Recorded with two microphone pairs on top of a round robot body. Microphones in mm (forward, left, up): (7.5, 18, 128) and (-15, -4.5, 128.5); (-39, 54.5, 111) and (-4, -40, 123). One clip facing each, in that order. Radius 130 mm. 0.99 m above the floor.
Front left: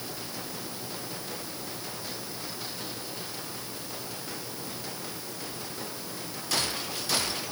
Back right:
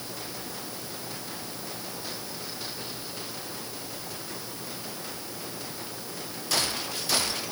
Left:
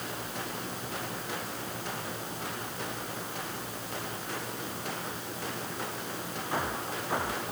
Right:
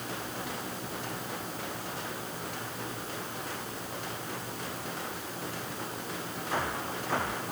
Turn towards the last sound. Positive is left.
No sound to turn to.